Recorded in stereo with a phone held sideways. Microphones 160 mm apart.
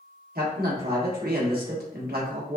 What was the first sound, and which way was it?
A man speaking, 75° right (ahead or behind).